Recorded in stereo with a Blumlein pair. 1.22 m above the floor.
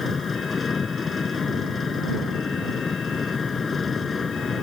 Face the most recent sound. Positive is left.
turn(degrees=15)